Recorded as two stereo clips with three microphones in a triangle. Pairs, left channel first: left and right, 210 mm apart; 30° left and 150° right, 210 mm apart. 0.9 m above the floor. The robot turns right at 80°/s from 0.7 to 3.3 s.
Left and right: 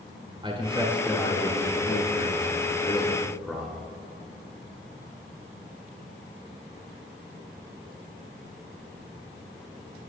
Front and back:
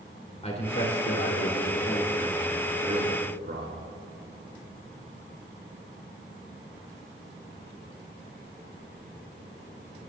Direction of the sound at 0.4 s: 25° right.